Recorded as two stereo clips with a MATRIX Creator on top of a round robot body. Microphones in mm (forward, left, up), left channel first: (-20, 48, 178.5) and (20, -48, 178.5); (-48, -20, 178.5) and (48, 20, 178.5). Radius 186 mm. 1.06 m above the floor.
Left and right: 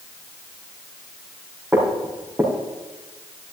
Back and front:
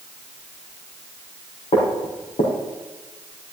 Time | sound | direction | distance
1.7 | footsteps | 150° right | 3.5 m